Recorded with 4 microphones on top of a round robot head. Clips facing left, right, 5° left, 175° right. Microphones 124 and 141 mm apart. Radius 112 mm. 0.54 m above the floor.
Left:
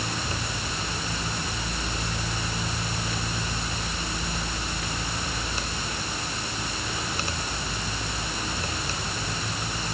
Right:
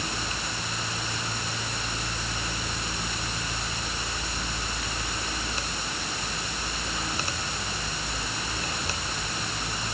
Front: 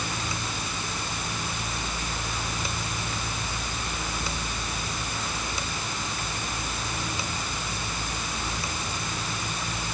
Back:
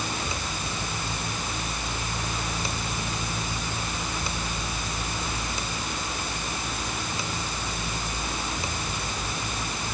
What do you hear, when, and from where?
Only background noise.